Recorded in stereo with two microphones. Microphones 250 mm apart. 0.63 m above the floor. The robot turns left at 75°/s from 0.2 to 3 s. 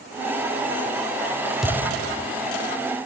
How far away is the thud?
About 0.6 m.